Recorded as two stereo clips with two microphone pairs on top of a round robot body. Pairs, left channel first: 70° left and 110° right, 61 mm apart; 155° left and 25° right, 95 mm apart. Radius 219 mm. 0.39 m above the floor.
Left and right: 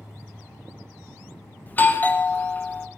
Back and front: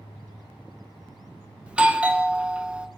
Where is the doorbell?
35° left, 1.2 m.